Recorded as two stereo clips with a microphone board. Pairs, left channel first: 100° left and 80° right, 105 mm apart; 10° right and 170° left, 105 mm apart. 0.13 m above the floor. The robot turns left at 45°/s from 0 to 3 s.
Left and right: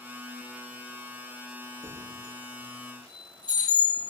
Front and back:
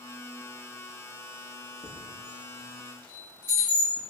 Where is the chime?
25° right, 1.3 m; by 4.0 s 75° right, 1.3 m.